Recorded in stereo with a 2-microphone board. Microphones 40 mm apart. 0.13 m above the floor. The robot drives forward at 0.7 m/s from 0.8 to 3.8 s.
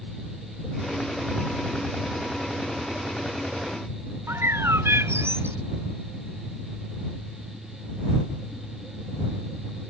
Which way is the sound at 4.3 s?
85° right.